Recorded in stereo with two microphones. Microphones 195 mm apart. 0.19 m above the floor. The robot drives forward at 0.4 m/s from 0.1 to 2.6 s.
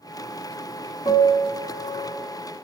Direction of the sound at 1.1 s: 25° left (ahead or behind).